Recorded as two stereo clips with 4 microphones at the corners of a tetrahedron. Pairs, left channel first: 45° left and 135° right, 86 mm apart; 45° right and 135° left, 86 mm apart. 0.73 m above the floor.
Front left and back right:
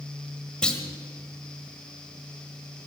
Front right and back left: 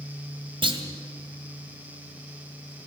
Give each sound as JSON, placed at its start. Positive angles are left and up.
{"t": 0.6, "sound": "a clunk", "azimuth_deg": 125, "distance_m": 1.9}